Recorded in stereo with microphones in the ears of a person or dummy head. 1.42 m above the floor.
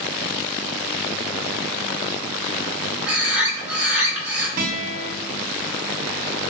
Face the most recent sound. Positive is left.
turn(degrees=-50)  # may be behind; listen again after turning